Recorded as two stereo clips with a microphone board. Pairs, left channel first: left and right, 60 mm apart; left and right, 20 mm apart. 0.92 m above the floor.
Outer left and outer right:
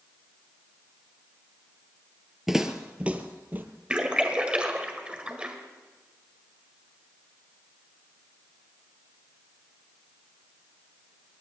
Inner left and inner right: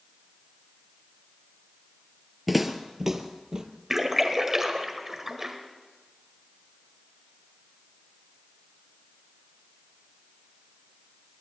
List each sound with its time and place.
2.5 s footsteps: 5° right (ahead or behind), 0.9 m; by 3.6 s 30° right (ahead or behind), 1.3 m
3.9 s a splash: 20° right (ahead or behind), 1.6 m